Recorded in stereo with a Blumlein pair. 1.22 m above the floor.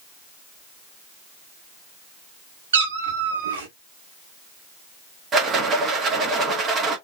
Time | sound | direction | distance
2.7 | a cat meowing | 65° right | 1.4 m
5.3 | a rattle | 25° right | 1.6 m